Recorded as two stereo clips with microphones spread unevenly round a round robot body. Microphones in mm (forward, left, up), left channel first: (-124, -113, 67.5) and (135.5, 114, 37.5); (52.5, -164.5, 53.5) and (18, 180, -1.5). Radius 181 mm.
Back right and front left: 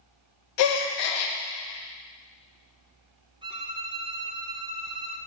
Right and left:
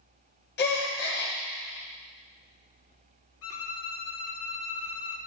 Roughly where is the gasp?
Behind right.